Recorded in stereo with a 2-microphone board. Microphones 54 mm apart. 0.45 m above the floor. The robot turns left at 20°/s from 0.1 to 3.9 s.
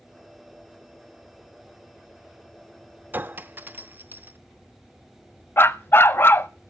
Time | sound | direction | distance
3.1 | a clink | 35° right (ahead or behind) | 0.5 m
5.6 | a dog barking | 45° left (ahead or behind) | 0.5 m